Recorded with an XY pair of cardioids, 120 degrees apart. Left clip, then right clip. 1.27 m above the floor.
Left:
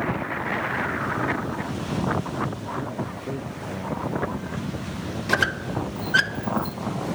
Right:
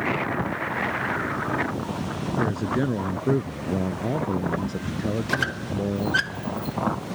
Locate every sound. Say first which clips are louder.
2.4 s a man speaking: right 4 dB; 60° right; by 6.2 s 55° right
5.3 s a squeak: left 7 dB; 20° left